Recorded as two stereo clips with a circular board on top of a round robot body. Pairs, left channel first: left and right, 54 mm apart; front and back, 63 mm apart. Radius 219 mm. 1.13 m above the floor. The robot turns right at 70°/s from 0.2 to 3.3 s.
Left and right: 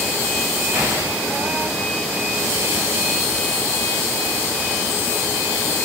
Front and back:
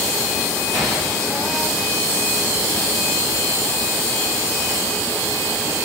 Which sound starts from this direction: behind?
An explosion, at 0.7 s.